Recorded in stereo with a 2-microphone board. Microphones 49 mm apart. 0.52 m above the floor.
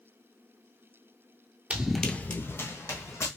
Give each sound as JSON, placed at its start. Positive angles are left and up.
{"t": 1.7, "sound": "running footsteps", "side_deg": -30, "distance_m": 0.6}